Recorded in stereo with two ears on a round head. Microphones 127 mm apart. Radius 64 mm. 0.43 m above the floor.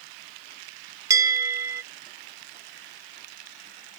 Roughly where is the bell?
Right.